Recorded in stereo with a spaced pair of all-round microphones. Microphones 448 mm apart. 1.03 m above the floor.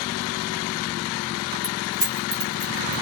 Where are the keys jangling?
55° right (ahead or behind), 3 m; by 3.0 s 35° right (ahead or behind), 2.5 m.